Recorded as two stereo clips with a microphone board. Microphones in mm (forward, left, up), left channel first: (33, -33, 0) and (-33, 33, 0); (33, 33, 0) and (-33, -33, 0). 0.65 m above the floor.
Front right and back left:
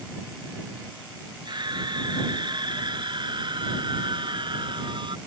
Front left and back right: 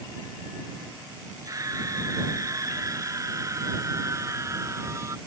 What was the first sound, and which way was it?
A scream, 175° left.